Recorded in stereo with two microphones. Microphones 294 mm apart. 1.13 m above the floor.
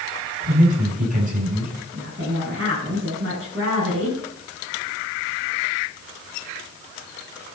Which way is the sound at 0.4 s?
25° right (ahead or behind).